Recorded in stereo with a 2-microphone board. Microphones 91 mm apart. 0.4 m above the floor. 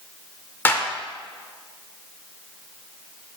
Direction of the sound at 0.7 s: 20° left (ahead or behind).